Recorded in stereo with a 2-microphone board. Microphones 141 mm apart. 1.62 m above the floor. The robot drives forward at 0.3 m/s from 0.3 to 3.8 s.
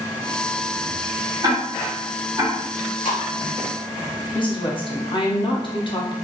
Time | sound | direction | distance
1.4 | ticking | 30° right (ahead or behind) | 0.9 m
2.7 | chewing | 75° left (ahead or behind) | 1.2 m
4.3 | a woman speaking | 35° left (ahead or behind) | 0.6 m